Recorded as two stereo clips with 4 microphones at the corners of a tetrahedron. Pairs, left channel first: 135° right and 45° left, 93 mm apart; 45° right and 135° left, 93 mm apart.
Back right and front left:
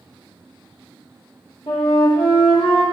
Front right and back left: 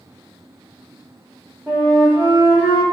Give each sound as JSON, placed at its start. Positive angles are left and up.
{"t": 1.7, "sound": "a flute", "azimuth_deg": -115, "distance_m": 2.0}